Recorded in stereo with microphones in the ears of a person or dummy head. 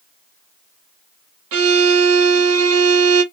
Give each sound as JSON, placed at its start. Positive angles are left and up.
{"t": 1.5, "sound": "a violin", "side_deg": -75, "distance_m": 1.0}